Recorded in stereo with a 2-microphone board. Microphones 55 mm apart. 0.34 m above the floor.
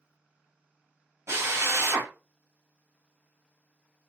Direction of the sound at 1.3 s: 55° right (ahead or behind).